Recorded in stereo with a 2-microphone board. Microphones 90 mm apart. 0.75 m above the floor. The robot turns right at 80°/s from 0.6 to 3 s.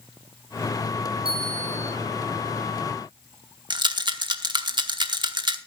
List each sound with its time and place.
1.2 s a bell: 75° right, 3.5 m; by 1.9 s 25° right, 3.5 m
3.7 s a rattle: 55° right (ahead or behind), 1.0 m